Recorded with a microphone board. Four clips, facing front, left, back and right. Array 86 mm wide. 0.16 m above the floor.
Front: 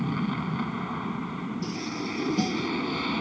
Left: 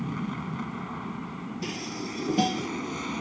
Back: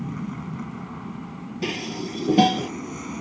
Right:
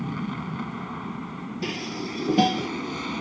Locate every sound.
0.0 s an aircraft: 15° right
1.6 s dishes clattering: 160° right